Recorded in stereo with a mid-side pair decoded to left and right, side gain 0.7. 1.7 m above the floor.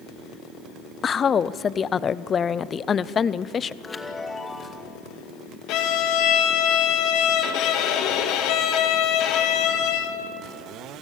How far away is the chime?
About 2 m.